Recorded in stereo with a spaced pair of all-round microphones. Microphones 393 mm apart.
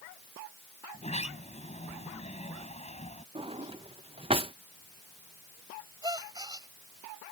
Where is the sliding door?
15° left (ahead or behind).